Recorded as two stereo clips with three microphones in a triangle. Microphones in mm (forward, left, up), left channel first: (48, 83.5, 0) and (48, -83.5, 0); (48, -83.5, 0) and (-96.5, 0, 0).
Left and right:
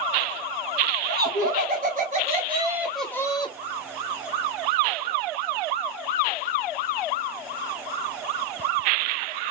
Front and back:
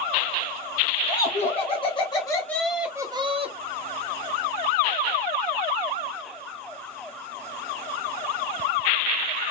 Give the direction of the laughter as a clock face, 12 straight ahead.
3 o'clock.